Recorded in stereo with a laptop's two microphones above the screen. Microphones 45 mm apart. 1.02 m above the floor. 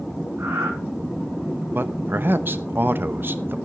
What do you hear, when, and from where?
0.4 s breathing: 85° right, 4 m
1.7 s a man speaking: 50° right (ahead or behind), 0.8 m